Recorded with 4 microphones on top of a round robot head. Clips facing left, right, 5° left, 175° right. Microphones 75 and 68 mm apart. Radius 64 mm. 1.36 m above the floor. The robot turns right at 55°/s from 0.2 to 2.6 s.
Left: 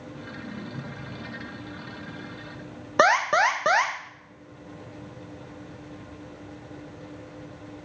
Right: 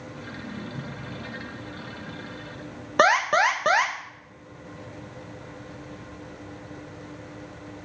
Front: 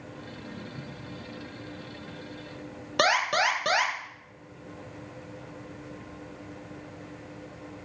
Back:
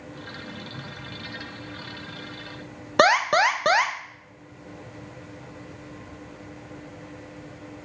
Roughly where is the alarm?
Behind.